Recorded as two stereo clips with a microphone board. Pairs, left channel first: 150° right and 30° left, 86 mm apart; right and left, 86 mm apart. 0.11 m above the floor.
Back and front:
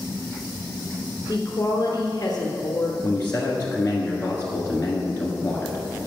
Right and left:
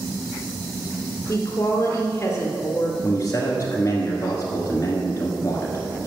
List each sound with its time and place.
1.3 s a woman speaking: 135° right, 1.4 m
3.0 s a man speaking: 110° right, 1.3 m